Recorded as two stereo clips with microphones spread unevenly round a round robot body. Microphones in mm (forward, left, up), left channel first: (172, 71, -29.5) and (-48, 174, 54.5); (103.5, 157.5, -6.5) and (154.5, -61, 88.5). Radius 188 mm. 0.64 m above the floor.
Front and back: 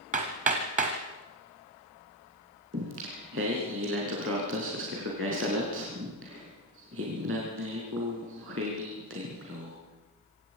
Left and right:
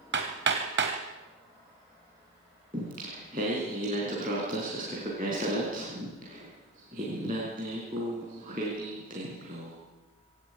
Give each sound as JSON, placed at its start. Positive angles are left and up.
{"t": 0.1, "sound": "hammering", "azimuth_deg": -135, "distance_m": 1.5}
{"t": 2.7, "sound": "singing", "azimuth_deg": -145, "distance_m": 4.5}